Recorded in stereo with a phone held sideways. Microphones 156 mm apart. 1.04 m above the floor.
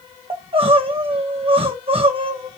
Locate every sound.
0.3 s crying: 40° right (ahead or behind), 0.9 m